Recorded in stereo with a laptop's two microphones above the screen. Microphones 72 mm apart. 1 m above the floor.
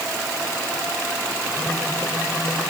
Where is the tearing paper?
No tearing paper in this recording.